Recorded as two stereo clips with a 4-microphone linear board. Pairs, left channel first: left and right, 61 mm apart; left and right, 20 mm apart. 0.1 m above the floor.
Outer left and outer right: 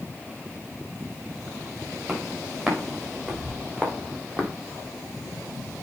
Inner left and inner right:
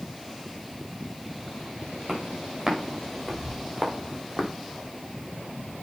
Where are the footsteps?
20° right (ahead or behind), 5.5 m.